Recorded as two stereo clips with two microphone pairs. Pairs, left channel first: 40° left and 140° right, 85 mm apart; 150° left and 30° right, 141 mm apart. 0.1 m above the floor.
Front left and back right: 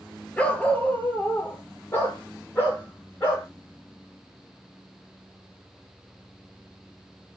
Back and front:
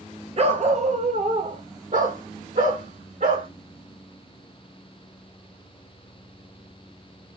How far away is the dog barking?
About 0.7 m.